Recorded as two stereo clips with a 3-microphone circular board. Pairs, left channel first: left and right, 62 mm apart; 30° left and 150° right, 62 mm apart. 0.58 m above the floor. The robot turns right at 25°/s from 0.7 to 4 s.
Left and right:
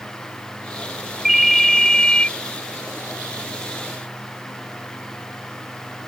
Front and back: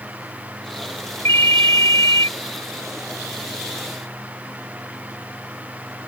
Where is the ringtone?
5° right; by 2.3 s 20° left.